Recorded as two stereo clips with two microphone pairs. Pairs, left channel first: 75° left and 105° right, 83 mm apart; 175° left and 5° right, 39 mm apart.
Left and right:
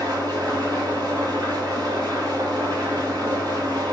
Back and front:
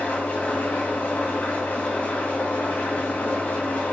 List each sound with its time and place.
0.0 s an engine running: 135° right, 2 m